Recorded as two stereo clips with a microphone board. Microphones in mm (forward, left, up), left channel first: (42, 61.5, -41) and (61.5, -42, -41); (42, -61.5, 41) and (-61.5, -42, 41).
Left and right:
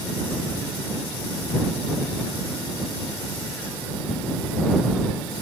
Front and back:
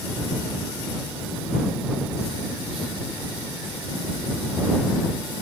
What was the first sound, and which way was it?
Only background noise.